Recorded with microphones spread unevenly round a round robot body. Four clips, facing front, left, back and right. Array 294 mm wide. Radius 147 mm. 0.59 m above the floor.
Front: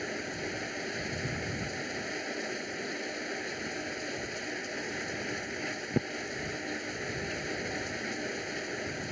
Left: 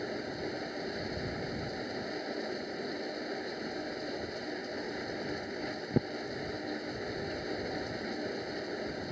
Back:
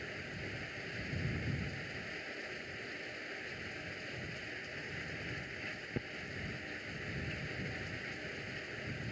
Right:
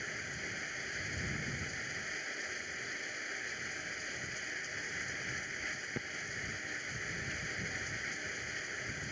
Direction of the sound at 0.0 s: 45° left.